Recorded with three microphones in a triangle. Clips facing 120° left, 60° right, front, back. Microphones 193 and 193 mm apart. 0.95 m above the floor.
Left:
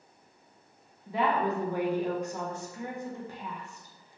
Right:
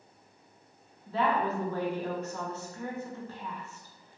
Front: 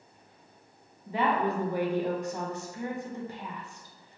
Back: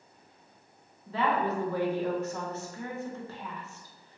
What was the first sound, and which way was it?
A woman speaking, 60° left.